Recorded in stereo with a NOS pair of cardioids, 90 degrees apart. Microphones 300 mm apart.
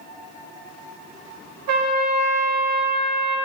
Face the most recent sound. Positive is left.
turn(degrees=-65)